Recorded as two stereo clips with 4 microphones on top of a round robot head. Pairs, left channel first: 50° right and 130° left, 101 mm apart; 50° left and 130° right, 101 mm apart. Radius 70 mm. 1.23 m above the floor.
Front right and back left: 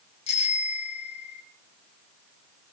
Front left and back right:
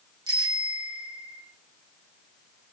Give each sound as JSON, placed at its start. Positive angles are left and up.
{"t": 0.3, "sound": "a bicycle bell", "azimuth_deg": -80, "distance_m": 5.0}